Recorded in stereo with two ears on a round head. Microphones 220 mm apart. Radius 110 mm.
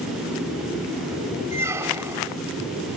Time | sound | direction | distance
1.5 | a squeak | 10° right (ahead or behind) | 1.0 m